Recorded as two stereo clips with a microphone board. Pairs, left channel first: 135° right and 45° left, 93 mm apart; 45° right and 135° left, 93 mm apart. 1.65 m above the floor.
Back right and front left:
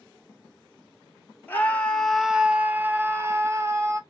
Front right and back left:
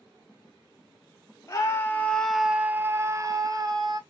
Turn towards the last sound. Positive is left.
turn(degrees=100)